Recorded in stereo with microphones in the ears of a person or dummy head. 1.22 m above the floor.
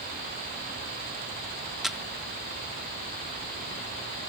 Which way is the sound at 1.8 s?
Centre (ahead or behind).